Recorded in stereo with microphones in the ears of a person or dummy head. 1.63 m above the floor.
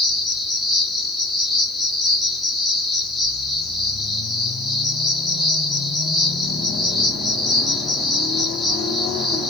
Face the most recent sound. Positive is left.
turn(degrees=-5)  # may be behind; listen again after turning